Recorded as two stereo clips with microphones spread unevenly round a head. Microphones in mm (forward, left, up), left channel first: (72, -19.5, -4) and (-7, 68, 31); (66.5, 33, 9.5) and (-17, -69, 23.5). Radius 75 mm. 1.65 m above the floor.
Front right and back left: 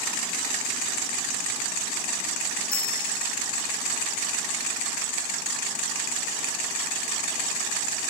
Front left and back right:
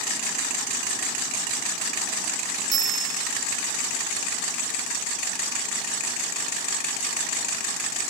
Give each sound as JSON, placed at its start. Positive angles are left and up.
{"t": 2.7, "sound": "a bell", "azimuth_deg": -110}